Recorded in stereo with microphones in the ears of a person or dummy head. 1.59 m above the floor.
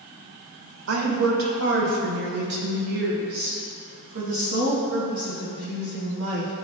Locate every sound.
0.9 s a woman speaking: 80° right, 1.6 m; by 6.5 s 55° right (ahead or behind), 9.5 m